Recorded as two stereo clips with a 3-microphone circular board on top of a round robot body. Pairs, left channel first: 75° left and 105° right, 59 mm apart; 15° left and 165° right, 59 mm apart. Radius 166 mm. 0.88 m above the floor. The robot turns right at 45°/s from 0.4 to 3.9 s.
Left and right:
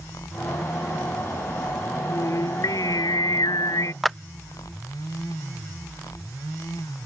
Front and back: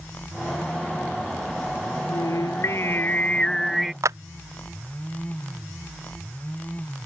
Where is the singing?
30° left; by 3.9 s 110° left.